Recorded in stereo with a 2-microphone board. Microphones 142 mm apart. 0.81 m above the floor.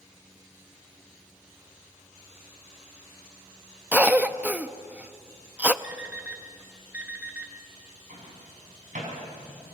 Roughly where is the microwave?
Right.